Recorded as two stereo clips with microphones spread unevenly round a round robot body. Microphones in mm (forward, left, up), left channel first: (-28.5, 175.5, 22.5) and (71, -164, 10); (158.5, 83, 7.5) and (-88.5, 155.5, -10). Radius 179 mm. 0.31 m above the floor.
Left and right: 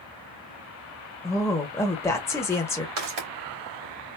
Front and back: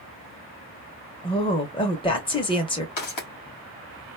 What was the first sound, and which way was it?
A woman speaking, 30° left.